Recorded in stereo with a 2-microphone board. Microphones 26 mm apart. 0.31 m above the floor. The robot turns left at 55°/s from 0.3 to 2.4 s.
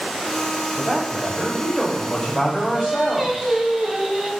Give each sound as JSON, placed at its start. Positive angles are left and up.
{"t": 0.8, "sound": "a man speaking", "side_deg": -5, "distance_m": 0.9}
{"t": 2.7, "sound": "singing", "side_deg": -25, "distance_m": 1.1}